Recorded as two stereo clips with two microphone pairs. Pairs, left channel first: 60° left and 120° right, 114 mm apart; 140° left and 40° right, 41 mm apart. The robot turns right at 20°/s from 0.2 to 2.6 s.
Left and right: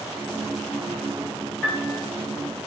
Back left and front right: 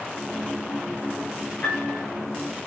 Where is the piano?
135° left, 1.8 m; by 2.0 s 145° left, 1.8 m.